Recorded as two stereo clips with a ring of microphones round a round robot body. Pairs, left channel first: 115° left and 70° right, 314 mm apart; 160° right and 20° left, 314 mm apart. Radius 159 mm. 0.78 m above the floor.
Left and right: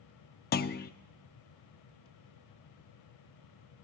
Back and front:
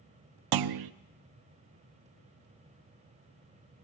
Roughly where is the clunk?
Ahead left.